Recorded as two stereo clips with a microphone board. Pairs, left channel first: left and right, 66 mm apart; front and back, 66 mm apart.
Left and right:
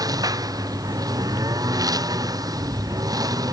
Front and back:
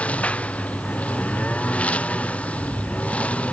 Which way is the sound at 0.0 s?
70° right.